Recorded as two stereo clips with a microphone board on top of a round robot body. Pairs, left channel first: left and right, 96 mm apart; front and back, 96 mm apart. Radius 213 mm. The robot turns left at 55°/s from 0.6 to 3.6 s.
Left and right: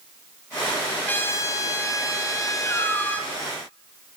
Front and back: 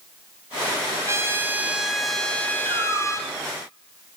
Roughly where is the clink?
No clink in this recording.